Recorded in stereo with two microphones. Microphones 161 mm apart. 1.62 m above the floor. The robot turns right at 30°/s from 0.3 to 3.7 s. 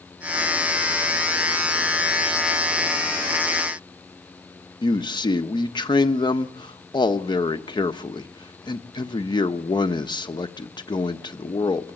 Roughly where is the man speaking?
Left.